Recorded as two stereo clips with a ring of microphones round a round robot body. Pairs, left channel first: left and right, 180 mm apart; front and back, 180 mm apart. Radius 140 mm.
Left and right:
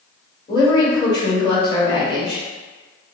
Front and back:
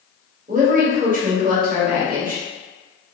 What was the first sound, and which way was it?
A woman speaking, 155° left.